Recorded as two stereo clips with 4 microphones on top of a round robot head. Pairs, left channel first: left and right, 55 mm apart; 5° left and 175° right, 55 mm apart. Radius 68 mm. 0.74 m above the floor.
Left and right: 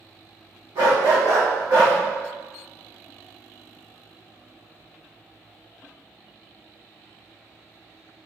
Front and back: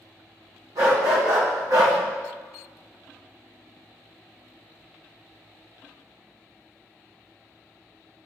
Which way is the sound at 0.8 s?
130° right.